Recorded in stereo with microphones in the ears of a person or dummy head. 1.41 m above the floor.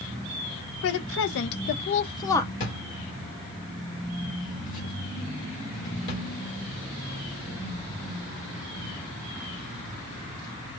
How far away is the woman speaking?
About 0.7 m.